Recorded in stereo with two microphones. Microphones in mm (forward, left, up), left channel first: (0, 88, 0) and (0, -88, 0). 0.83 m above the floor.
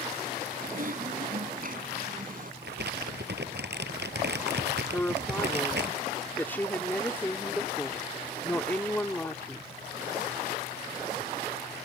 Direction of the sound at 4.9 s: 10° left (ahead or behind).